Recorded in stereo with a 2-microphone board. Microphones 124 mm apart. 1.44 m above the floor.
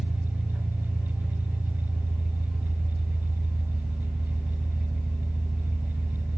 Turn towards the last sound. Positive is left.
turn(degrees=5)  # may be behind; listen again after turning